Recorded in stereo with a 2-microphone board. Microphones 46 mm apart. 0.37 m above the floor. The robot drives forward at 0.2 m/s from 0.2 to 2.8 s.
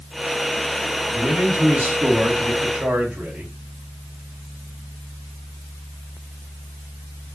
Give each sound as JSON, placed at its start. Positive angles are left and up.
{"t": 1.1, "sound": "a man speaking", "side_deg": -35, "distance_m": 1.9}